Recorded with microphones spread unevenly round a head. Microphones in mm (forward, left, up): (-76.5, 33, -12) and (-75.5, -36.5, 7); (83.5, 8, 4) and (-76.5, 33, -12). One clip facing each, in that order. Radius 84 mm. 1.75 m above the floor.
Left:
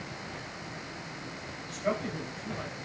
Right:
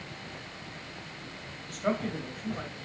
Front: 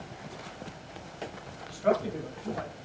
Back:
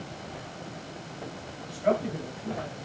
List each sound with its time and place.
1.7 s a man speaking: 125° right, 1.0 m